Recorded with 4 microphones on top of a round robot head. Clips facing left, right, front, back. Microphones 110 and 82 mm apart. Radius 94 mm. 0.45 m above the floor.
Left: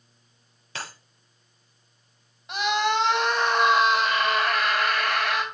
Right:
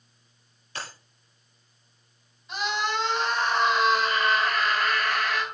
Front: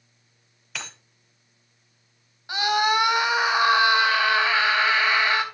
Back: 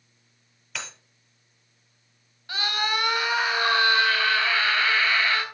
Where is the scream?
70° left, 4 m.